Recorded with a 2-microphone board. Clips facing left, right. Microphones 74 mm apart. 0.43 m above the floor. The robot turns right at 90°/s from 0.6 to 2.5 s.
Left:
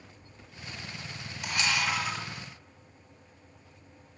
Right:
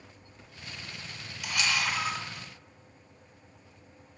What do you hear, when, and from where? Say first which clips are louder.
1.4 s a camera shutter: left 1 dB; 120° left, 1.1 m; by 2.2 s 165° right, 1.1 m